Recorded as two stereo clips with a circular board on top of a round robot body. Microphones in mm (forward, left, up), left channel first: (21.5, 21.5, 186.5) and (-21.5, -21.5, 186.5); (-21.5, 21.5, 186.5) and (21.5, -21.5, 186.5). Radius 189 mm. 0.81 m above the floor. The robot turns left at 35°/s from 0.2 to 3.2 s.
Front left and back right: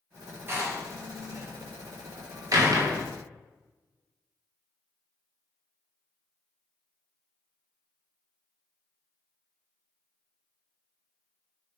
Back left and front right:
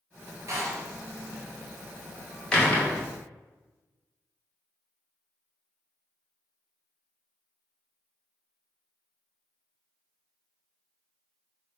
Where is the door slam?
80° right, 2.5 m; by 3.0 s 170° right, 2.5 m.